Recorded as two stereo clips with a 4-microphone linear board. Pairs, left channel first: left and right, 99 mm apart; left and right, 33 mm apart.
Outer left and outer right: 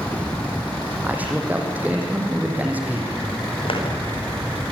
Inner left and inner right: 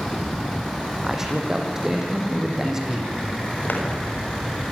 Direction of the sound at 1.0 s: 15° right (ahead or behind).